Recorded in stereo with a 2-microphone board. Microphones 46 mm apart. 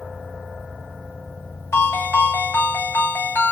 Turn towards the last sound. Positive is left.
turn(degrees=65)  # may be behind; listen again after turning